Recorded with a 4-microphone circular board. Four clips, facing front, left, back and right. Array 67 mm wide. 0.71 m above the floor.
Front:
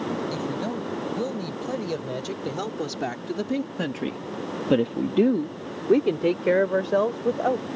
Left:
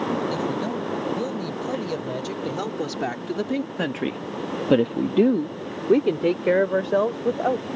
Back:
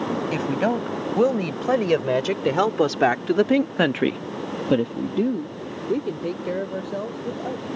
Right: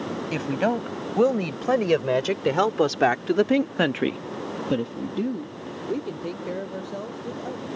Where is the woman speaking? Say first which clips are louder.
Right 1 dB, back 6 dB; 135° right; by 7.7 s 50° left.